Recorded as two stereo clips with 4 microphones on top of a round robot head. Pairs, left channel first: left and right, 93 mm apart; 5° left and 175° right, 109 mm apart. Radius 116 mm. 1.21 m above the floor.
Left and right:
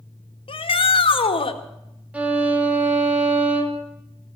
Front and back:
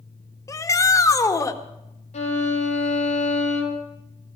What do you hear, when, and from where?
0.5 s a shout: 65° left, 1.6 m
2.1 s a violin: 15° right, 2.5 m